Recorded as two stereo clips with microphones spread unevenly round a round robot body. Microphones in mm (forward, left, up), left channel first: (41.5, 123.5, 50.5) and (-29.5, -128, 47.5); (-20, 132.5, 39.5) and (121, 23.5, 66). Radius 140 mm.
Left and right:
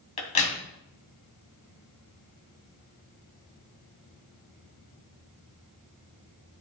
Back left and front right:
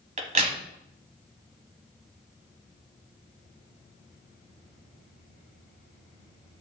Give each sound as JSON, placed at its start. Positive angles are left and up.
{"t": 0.2, "sound": "a crack", "azimuth_deg": 10, "distance_m": 2.5}